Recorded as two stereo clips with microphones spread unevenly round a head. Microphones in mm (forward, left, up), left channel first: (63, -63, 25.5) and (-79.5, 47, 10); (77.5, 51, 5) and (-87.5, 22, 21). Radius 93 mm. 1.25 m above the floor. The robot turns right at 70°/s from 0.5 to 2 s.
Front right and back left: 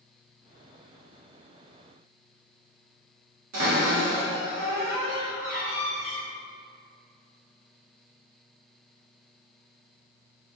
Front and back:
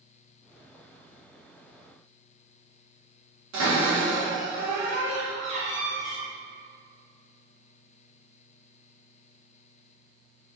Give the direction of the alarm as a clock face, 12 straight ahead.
No alarm in this recording.